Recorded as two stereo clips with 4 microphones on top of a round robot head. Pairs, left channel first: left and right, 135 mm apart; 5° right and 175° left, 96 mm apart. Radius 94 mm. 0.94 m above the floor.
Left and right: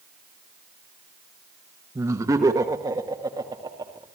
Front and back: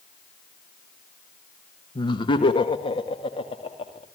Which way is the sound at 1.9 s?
25° right.